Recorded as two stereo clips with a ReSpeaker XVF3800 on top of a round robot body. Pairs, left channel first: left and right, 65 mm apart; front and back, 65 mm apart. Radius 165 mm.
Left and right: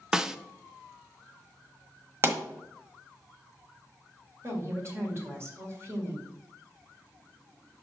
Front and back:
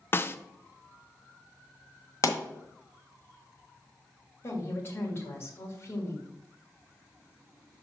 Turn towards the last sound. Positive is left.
turn(degrees=-50)